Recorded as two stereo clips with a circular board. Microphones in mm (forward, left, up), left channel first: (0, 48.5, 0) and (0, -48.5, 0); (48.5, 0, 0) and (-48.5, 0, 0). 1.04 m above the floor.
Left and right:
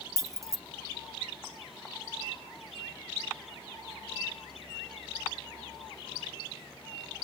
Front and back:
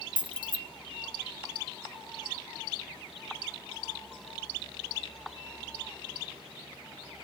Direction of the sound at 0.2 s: 145° right.